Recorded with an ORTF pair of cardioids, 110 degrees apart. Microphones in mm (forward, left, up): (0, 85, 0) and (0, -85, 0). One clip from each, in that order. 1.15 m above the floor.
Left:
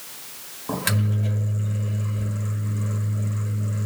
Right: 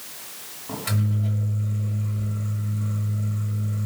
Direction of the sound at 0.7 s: 60° left.